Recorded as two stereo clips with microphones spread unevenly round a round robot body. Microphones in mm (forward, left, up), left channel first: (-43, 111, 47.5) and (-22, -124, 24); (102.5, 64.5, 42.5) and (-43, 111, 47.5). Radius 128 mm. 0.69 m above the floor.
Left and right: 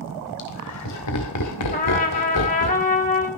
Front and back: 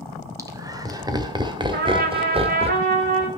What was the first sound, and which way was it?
Laughter, 95° left.